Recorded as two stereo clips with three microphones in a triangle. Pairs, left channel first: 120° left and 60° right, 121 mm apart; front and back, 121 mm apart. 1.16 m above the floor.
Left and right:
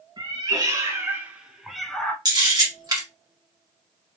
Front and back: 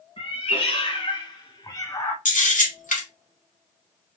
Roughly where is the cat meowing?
Ahead.